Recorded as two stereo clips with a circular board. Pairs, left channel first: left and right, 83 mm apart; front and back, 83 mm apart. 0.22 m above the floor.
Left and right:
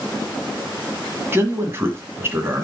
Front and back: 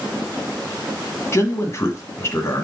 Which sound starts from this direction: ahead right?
A man speaking, at 1.3 s.